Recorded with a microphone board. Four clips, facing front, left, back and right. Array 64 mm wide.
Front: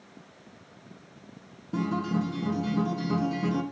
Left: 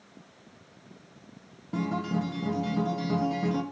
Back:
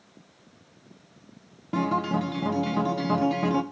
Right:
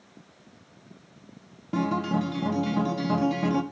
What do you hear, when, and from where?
1.7 s a guitar: 155° right, 0.8 m